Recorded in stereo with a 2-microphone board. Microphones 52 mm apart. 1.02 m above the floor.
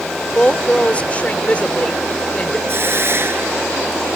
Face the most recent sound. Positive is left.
turn(degrees=-50)  # may be behind; listen again after turning